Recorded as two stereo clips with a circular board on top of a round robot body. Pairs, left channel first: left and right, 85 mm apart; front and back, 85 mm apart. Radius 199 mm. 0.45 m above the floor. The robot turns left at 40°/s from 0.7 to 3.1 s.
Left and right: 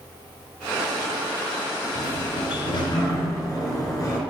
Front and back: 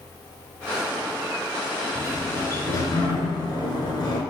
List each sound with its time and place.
1.9 s a sliding door: 85° left, 4 m; by 4.2 s 40° left, 4 m